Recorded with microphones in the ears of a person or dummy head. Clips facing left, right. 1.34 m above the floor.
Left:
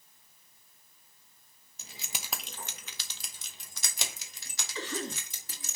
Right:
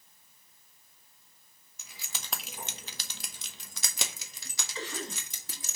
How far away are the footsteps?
No footsteps in this recording.